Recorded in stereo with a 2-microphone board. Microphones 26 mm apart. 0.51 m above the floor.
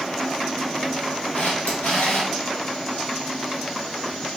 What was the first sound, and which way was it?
A camera shutter, 70° left (ahead or behind).